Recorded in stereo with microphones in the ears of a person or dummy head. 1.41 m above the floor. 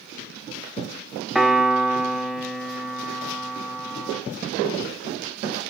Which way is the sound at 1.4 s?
5° right (ahead or behind).